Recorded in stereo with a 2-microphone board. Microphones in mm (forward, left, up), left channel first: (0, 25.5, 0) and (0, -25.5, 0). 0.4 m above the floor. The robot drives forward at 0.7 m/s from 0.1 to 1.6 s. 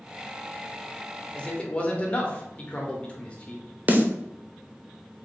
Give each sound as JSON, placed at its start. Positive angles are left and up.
{"t": 1.4, "sound": "a man speaking", "side_deg": 25, "distance_m": 0.8}
{"t": 3.9, "sound": "a snare drum", "side_deg": -35, "distance_m": 0.6}